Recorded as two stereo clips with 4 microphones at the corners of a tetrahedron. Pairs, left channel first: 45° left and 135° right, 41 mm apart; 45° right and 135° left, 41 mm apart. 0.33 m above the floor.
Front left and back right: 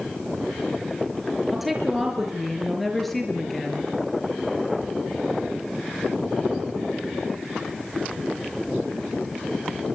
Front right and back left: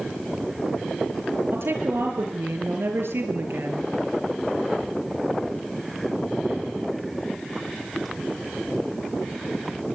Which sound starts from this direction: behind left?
A woman speaking, at 1.5 s.